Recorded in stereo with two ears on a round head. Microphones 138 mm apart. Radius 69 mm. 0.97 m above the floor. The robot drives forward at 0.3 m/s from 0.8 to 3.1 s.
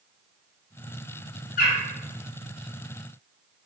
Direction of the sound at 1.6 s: 55° left (ahead or behind).